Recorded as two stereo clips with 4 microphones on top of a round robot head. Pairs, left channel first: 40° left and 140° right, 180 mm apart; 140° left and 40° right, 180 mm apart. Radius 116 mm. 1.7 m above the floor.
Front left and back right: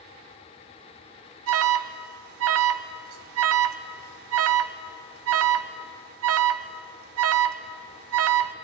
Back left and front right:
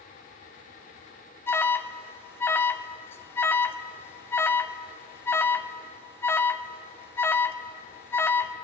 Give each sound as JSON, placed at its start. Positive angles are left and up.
{"t": 1.5, "sound": "an alarm", "azimuth_deg": -140, "distance_m": 0.6}